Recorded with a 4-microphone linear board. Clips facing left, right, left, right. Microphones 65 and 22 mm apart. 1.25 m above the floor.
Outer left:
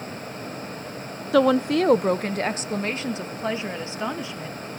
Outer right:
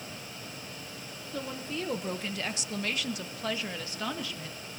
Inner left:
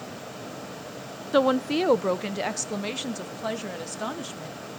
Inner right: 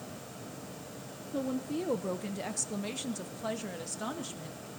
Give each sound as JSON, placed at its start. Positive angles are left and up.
{"t": 1.3, "sound": "a woman speaking", "side_deg": 80, "distance_m": 0.5}